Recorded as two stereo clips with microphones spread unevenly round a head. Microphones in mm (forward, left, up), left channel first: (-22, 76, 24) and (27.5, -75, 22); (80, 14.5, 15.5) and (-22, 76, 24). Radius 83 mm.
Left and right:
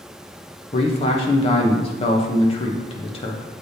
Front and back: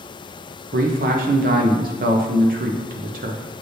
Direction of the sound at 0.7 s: 165° left.